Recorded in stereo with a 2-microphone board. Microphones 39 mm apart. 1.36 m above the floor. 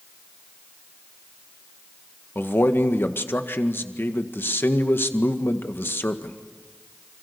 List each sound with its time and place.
2.4 s a man speaking: 70° left (ahead or behind), 1.8 m